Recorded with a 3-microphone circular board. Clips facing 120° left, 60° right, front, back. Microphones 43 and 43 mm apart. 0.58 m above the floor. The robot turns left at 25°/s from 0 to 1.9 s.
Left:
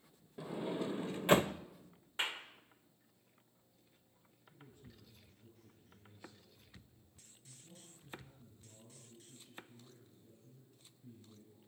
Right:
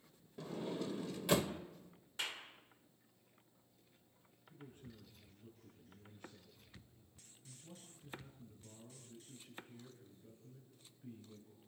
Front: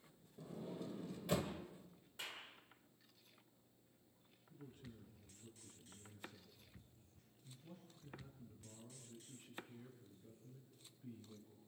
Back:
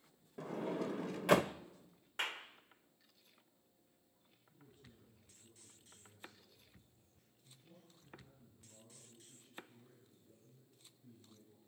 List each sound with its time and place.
0.4 s a sliding door: 165° right, 0.6 m; by 1.5 s 165° left, 0.6 m
2.2 s a clap: 175° left, 1.4 m
4.5 s a man speaking: 25° right, 7 m